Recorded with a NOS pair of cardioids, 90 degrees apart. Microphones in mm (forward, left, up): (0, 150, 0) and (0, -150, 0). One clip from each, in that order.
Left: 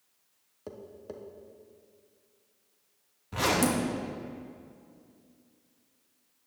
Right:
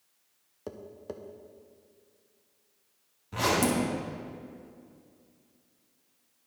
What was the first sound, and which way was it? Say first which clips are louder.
Tapping: right 2 dB; 15° right.